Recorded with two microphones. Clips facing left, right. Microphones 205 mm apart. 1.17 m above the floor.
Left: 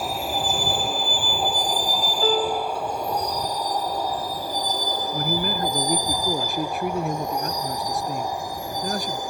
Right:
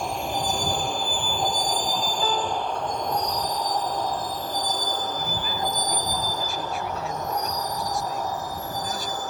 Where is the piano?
45° left (ahead or behind).